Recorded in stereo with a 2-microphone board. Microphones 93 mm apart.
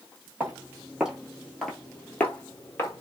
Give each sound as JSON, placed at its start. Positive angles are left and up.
{"t": 0.4, "sound": "footsteps", "side_deg": -15, "distance_m": 1.6}